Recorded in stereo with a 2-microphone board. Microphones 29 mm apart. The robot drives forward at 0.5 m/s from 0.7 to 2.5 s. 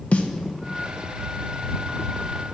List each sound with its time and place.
0.1 s a snare drum: 55° left (ahead or behind), 1.0 m